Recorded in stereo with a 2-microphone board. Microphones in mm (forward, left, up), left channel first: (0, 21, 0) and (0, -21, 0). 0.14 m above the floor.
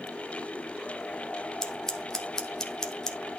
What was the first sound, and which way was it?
Scissors, 15° left (ahead or behind).